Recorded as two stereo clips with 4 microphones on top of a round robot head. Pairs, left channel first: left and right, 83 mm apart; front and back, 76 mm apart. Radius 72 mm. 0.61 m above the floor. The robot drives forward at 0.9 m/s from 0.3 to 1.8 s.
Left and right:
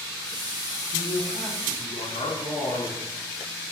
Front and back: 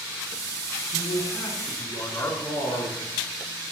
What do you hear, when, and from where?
0.9 s a man speaking: 40° left, 6 m; by 3.0 s 45° left, 5.5 m